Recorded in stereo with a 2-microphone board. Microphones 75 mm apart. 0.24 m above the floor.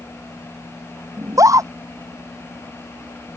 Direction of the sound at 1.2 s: 45° right (ahead or behind).